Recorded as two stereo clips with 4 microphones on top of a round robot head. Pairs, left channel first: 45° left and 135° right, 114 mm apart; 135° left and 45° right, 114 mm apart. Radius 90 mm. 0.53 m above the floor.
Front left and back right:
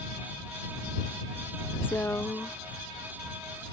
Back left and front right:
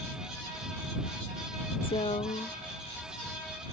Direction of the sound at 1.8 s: 115° left.